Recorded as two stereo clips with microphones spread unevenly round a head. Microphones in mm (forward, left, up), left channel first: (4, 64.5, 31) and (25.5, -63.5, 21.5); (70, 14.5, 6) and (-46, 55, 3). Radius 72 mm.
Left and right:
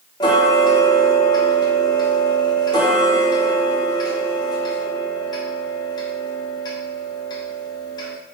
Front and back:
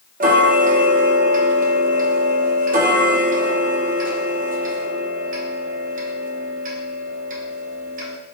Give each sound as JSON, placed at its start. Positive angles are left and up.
{"t": 0.2, "sound": "ticking", "azimuth_deg": 160, "distance_m": 0.6}